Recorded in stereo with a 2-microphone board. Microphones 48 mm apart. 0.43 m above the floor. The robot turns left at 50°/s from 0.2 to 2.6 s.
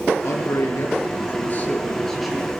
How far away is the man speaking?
About 6.5 m.